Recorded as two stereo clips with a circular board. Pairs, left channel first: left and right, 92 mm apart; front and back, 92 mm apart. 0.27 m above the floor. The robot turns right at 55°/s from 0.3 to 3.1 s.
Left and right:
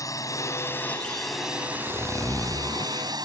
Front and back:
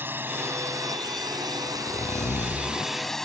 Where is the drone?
125° left; by 3.2 s 85° right.